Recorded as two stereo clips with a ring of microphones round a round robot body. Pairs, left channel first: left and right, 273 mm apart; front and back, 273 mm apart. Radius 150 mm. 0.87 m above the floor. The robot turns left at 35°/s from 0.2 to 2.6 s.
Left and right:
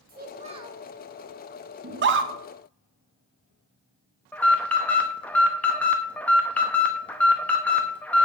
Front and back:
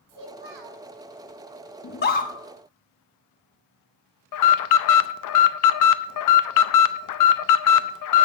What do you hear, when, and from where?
0.1 s a child speaking: 150° right, 1.8 m; by 0.8 s 170° right, 1.8 m
1.8 s a scream: 40° right, 1.0 m; by 2.3 s 60° right, 1.0 m
4.3 s an alarm: 5° left, 0.6 m